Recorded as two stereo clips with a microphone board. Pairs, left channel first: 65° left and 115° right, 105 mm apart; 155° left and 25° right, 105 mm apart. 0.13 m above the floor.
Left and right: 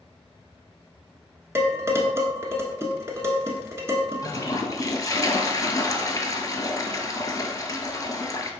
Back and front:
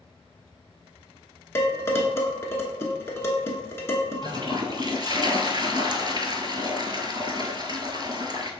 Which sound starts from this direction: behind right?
Dishes clattering, at 1.6 s.